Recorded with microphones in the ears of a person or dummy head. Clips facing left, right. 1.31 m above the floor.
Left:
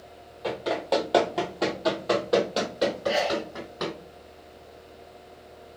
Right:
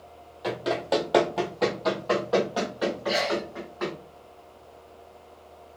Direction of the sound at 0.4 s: 15° right (ahead or behind).